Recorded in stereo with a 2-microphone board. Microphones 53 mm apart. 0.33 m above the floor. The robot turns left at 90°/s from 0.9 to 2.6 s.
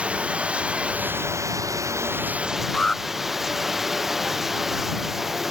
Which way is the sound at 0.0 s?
20° right.